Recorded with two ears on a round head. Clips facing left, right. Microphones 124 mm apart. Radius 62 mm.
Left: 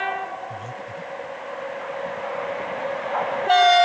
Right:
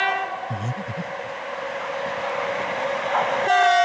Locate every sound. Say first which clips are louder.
0.5 s breathing: right 3 dB; 60° right (ahead or behind)